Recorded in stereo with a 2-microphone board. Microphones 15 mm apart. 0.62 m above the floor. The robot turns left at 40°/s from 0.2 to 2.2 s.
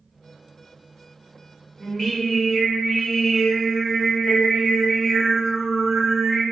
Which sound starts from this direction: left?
Singing, at 1.8 s.